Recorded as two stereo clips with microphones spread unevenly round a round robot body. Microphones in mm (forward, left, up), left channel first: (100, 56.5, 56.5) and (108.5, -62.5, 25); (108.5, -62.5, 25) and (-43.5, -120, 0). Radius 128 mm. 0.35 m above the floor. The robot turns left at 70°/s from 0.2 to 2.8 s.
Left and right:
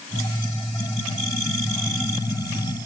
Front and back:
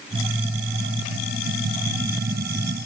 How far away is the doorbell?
I don't hear a doorbell.